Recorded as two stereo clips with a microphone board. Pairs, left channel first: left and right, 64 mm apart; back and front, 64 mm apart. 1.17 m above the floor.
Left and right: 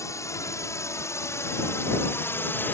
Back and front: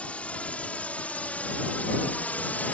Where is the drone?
110° left; by 2.7 s 125° left.